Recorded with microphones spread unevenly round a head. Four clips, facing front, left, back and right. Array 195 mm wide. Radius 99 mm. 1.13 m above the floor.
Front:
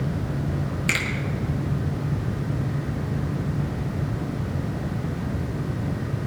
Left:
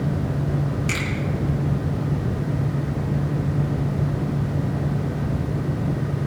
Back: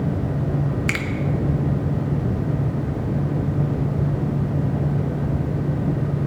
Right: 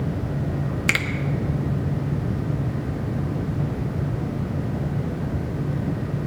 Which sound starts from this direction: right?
A finger snap, at 0.9 s.